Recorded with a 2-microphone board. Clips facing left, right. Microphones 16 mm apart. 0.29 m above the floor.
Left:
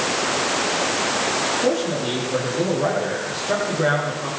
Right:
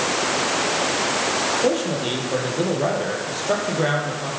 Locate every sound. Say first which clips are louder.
1.6 s a man speaking: even; 20° right (ahead or behind), 8 m